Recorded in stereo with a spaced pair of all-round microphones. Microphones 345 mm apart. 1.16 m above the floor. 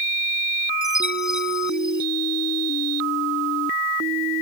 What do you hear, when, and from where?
0.8 s a chime: 55° right (ahead or behind)